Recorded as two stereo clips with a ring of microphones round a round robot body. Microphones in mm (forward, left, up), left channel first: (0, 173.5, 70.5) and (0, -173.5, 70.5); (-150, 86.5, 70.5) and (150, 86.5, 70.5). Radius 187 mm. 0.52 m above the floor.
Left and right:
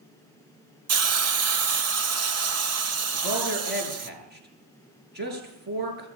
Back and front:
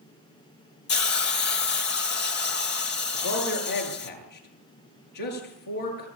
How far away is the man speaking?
About 8 m.